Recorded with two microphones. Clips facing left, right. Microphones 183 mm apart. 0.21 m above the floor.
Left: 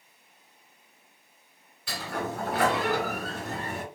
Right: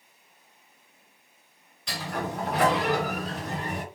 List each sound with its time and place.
1.9 s a sliding door: 5° left (ahead or behind), 3.5 m